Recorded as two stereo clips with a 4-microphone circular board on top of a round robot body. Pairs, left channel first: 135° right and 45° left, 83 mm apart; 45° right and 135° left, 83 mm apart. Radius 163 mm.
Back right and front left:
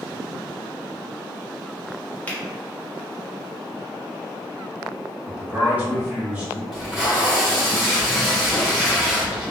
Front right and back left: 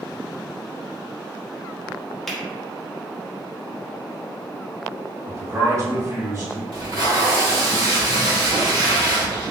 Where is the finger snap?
125° right, 1.3 m.